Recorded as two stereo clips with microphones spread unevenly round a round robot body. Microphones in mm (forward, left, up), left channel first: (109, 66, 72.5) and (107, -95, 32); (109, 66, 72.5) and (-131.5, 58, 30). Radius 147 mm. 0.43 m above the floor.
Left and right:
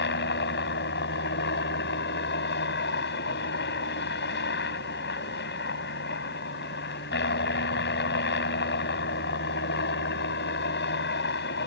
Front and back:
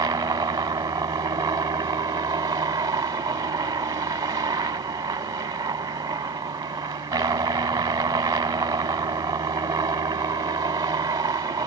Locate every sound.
0.0 s a helicopter: 110° left